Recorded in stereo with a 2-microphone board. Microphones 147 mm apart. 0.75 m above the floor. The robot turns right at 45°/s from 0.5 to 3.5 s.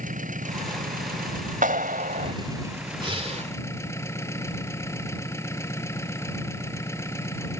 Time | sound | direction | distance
0.0 | an engine running | 115° right | ?
1.6 | a clap | 110° right | ?
3.0 | breathing | 35° right (ahead or behind) | ?